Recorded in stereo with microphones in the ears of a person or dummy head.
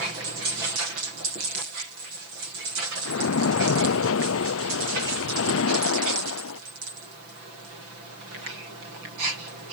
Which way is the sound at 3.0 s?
75° left (ahead or behind).